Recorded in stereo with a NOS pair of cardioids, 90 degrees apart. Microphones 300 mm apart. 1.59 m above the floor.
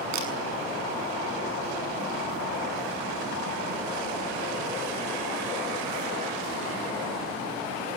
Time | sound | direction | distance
0.1 | a camera shutter | 65° right | 6.5 m